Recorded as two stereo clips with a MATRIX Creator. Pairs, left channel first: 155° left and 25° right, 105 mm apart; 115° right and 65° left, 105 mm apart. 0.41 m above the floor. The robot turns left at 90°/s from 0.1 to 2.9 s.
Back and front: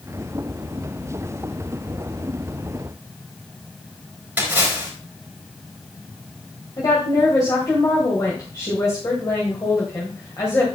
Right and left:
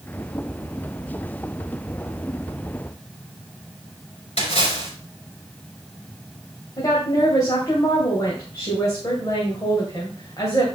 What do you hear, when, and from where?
4.4 s a splash: 100° right, 4 m
6.8 s a woman speaking: 160° right, 2 m